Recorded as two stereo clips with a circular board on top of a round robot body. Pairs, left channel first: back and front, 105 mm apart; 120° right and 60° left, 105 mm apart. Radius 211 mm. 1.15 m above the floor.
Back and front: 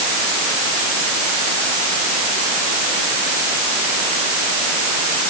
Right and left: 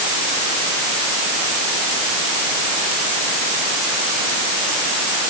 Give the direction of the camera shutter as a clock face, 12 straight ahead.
I don't hear a camera shutter.